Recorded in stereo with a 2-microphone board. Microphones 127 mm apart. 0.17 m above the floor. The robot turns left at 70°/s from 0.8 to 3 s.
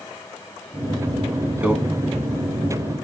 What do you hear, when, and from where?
1.6 s a microwave: 10° right (ahead or behind), 1.2 m; by 1.7 s 15° right (ahead or behind), 1.2 m